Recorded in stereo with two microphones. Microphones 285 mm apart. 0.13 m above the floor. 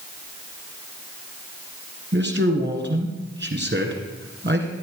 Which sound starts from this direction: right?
A man speaking, at 2.1 s.